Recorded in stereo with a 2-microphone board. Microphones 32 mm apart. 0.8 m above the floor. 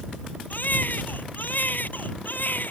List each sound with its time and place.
0.5 s a baby crying: 65° left (ahead or behind)